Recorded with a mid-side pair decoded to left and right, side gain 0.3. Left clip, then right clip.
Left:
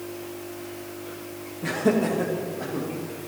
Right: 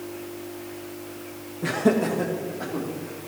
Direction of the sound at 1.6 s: 60° right.